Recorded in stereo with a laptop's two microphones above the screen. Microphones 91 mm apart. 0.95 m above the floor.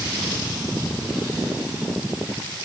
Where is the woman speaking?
No woman speaking in this recording.